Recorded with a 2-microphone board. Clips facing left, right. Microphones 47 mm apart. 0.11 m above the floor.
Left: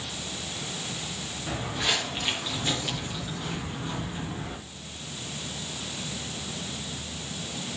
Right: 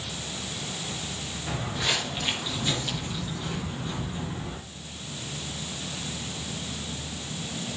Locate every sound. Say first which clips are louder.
1.5 s footsteps: even; 15° left (ahead or behind), 6.5 m; by 4.6 s 30° left (ahead or behind), 7.5 m